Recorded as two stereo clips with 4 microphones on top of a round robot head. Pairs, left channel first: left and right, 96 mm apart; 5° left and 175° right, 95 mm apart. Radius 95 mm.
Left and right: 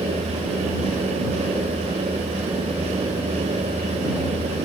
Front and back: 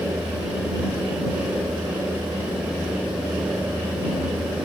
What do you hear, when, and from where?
Only background noise.